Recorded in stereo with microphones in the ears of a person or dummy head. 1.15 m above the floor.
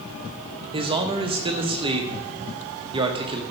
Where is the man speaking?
25° right (ahead or behind), 1.3 m.